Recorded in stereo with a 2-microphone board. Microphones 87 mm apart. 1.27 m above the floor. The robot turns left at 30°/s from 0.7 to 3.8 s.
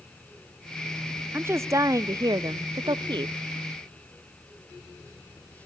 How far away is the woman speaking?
About 0.5 m.